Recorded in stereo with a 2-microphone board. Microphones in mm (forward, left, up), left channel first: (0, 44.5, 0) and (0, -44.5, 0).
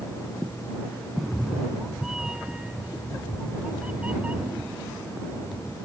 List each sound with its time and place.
1.2 s a cat meowing: 5° left (ahead or behind); by 5.8 s 20° right (ahead or behind)